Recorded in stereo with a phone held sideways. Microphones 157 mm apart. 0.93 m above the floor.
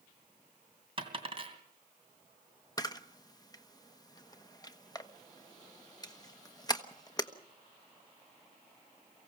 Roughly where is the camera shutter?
Left.